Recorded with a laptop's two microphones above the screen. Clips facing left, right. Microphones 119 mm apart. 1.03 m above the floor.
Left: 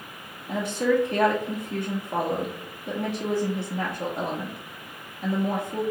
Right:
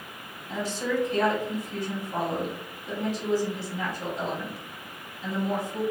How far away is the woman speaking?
About 0.9 m.